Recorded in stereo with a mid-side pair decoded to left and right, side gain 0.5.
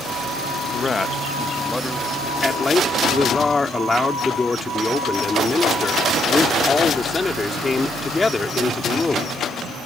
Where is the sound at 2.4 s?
20° left.